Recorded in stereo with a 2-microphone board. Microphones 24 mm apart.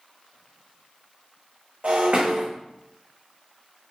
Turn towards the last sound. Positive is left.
turn(degrees=-60)  # may be behind; listen again after turning